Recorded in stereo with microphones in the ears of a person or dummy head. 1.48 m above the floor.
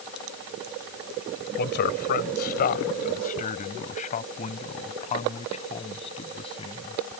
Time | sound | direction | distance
1.6 | a man speaking | 50° left (ahead or behind) | ?